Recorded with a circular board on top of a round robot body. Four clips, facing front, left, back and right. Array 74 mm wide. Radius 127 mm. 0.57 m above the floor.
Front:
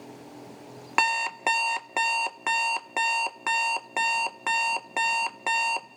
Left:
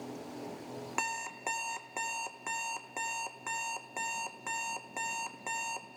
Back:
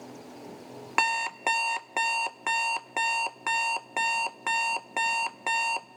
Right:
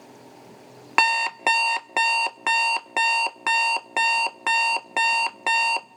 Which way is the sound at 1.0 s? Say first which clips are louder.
Right 17 dB, front 2 dB; 85° right.